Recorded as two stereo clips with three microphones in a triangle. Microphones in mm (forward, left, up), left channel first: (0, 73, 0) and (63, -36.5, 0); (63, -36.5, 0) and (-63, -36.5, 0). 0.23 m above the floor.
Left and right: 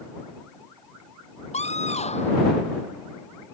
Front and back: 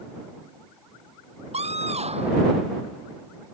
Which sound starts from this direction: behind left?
A scream, at 1.5 s.